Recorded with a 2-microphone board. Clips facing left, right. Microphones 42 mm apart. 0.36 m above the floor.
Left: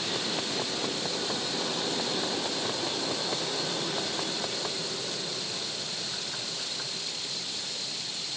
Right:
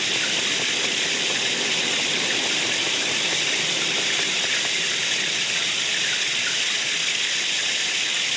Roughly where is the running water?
Right.